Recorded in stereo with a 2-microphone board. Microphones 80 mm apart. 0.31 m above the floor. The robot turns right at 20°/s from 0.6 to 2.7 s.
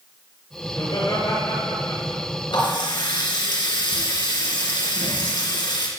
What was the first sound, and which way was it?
Laughter, 50° left.